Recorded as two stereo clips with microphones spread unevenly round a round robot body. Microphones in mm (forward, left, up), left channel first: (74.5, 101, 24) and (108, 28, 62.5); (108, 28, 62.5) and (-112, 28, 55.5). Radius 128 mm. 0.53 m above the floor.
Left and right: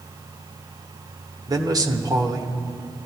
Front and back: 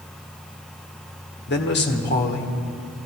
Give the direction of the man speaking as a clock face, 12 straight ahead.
12 o'clock.